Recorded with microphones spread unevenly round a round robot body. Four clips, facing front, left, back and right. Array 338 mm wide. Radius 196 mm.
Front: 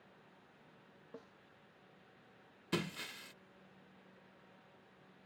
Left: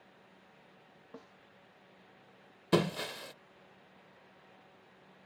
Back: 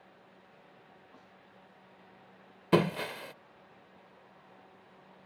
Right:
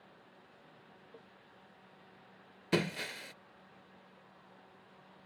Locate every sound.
1.1 s a snare drum: 75° left
2.7 s breaking glass: 165° left